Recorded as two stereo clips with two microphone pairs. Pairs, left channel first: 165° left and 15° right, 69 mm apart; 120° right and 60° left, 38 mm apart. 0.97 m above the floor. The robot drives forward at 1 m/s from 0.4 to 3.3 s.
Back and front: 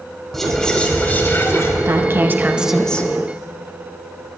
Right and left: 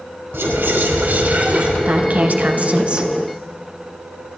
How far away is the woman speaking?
About 1.3 m.